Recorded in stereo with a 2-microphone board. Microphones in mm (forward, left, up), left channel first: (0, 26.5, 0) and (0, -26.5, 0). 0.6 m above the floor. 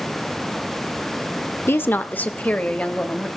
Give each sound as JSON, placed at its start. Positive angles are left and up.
{"t": 1.7, "sound": "a woman speaking", "side_deg": 45, "distance_m": 1.1}